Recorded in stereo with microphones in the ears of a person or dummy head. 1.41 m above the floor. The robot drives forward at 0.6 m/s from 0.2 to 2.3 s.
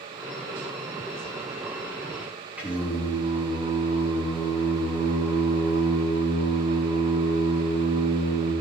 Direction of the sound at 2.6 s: Centre (ahead or behind).